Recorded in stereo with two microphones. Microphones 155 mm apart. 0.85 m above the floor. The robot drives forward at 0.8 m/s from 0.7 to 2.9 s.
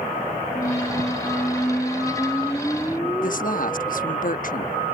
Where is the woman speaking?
60° left (ahead or behind).